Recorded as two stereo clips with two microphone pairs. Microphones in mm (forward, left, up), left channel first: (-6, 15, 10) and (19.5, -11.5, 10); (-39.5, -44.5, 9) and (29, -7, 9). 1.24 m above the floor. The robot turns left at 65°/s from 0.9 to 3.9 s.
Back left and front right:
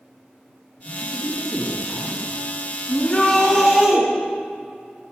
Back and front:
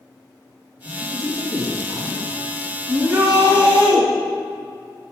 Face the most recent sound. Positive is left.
turn(degrees=15)